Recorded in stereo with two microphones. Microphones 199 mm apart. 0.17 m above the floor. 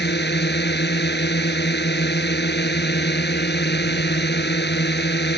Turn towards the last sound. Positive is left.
turn(degrees=60)  # may be behind; listen again after turning